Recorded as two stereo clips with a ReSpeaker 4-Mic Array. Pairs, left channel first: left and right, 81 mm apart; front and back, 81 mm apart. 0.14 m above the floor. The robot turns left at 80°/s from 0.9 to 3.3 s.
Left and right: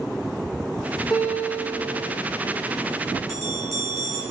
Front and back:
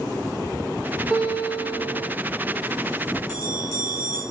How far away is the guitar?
About 8 m.